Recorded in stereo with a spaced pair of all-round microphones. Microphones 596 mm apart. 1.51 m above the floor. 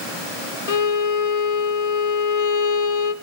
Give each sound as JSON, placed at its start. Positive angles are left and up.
{"t": 0.7, "sound": "a violin", "side_deg": 65, "distance_m": 0.9}